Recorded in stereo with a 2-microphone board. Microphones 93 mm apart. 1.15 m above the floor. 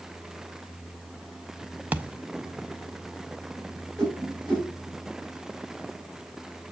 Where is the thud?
15° right (ahead or behind), 0.6 m.